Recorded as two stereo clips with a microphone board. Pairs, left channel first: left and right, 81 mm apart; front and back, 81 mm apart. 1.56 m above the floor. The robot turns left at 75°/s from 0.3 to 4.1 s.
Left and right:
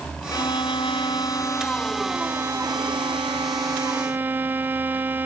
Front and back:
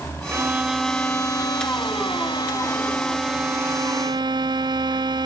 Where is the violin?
125° left, 0.6 m; by 5.2 s 155° right, 0.6 m.